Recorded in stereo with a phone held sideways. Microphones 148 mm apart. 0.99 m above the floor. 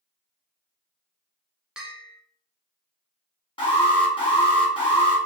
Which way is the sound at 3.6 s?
35° left (ahead or behind).